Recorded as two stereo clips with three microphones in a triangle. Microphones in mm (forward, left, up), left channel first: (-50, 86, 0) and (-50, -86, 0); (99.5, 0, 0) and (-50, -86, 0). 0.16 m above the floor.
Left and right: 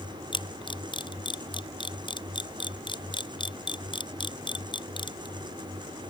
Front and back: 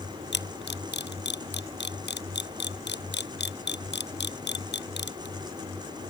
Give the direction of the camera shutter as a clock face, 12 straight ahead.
11 o'clock.